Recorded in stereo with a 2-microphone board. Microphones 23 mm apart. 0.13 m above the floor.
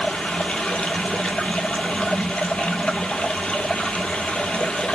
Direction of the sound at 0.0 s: 70° left (ahead or behind).